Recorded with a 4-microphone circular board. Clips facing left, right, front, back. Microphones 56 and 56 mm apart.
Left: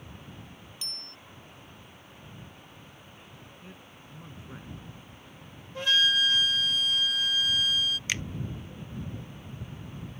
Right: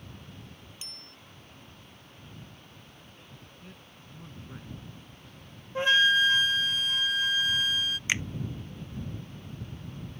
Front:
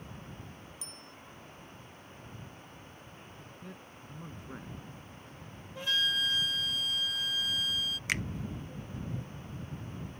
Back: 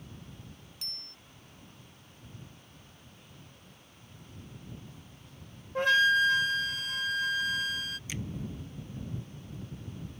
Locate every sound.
0.8 s a bicycle bell: 165° right
3.6 s a man speaking: 10° left
5.8 s a flute: 150° right
8.1 s a finger snap: 20° right